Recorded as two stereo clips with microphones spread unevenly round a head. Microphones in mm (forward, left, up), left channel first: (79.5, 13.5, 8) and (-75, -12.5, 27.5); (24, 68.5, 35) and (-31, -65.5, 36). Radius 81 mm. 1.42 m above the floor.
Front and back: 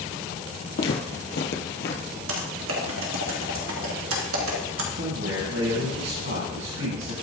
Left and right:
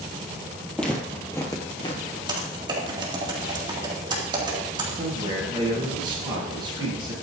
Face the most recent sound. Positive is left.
turn(degrees=-175)